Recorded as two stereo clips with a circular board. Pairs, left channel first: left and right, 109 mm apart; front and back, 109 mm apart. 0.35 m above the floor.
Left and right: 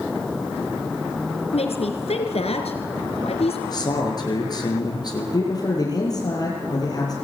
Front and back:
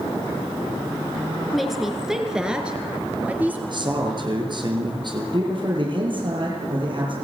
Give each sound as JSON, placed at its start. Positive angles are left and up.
{"t": 1.5, "sound": "a woman speaking", "azimuth_deg": 90, "distance_m": 4.5}
{"t": 3.7, "sound": "a man speaking", "azimuth_deg": 140, "distance_m": 6.5}
{"t": 5.3, "sound": "a man speaking", "azimuth_deg": 140, "distance_m": 9.0}